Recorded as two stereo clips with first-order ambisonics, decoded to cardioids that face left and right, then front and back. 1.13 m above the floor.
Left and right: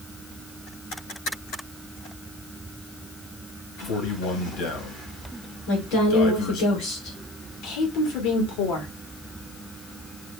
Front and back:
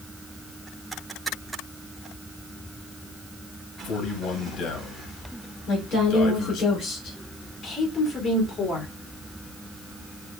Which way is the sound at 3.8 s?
50° left.